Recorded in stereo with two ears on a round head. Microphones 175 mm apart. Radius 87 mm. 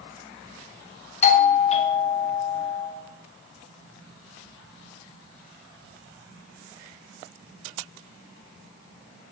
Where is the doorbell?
35° left (ahead or behind), 0.7 m.